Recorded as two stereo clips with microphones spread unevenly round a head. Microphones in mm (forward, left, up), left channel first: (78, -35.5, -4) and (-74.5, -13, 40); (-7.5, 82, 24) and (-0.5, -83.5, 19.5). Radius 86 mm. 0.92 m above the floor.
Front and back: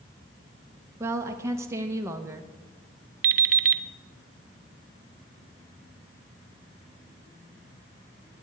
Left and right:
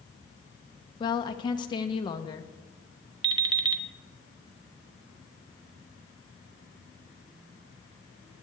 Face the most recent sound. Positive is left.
turn(degrees=-155)